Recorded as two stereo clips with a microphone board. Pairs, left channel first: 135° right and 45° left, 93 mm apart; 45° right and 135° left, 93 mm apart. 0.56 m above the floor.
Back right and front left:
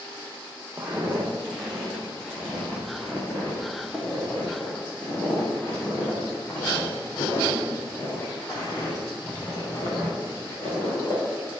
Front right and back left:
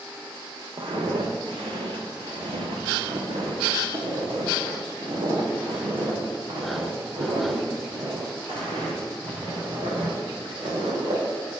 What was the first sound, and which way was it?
Footsteps, 120° left.